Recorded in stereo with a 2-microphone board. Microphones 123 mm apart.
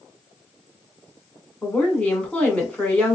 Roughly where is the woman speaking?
Centre.